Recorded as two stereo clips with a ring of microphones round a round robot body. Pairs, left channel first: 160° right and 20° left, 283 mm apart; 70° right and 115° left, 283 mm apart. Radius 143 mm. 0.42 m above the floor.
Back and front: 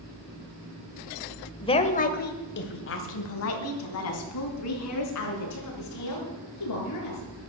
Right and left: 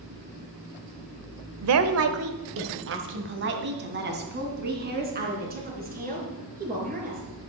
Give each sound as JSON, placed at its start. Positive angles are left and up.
{"t": 1.6, "sound": "a woman speaking", "azimuth_deg": 130, "distance_m": 1.4}